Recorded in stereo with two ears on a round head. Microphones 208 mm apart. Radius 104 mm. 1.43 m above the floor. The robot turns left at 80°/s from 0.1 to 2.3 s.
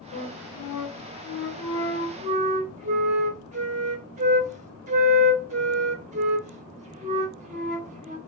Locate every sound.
0.1 s a flute: 145° left, 1.5 m; by 8.2 s 30° right, 1.5 m